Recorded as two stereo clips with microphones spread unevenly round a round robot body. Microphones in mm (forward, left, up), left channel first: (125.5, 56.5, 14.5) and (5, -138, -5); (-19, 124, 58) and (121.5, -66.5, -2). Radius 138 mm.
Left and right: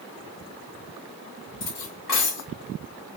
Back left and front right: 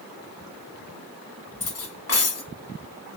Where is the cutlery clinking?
95° left, 1.5 m.